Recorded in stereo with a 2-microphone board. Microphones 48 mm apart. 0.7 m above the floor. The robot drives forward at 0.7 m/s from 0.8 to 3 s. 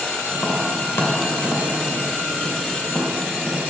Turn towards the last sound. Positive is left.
turn(degrees=50)  # may be behind; listen again after turning